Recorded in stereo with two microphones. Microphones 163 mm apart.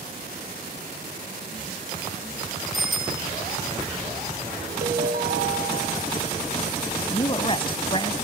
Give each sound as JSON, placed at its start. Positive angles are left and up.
{"t": 2.7, "sound": "a bicycle bell", "side_deg": 0, "distance_m": 9.0}
{"t": 4.8, "sound": "a ringtone", "side_deg": -70, "distance_m": 4.5}
{"t": 7.1, "sound": "a woman speaking", "side_deg": 35, "distance_m": 1.2}